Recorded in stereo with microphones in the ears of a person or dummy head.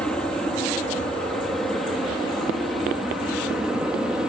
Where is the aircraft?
5° left (ahead or behind); by 4.3 s 5° right (ahead or behind).